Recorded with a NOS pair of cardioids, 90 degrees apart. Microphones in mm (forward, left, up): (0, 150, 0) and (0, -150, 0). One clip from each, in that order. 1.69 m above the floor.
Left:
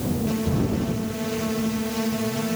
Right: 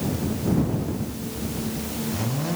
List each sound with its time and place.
Only background noise.